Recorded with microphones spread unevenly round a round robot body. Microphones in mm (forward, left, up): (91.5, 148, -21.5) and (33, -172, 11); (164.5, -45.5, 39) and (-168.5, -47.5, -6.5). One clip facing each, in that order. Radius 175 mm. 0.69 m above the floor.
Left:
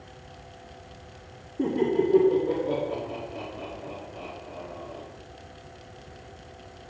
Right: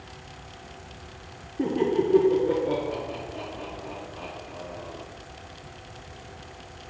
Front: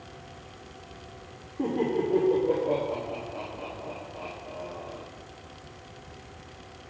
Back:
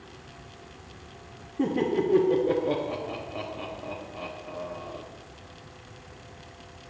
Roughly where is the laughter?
Behind.